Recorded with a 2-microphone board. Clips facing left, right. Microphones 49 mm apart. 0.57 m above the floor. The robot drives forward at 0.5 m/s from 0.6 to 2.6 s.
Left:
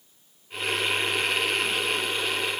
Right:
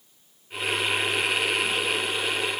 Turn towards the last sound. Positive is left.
No sound to turn to.